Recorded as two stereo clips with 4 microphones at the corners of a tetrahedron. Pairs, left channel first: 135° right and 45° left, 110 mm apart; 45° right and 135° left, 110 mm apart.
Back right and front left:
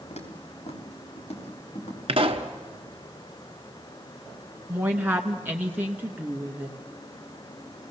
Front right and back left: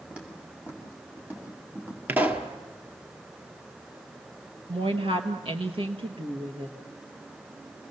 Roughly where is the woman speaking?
Behind left.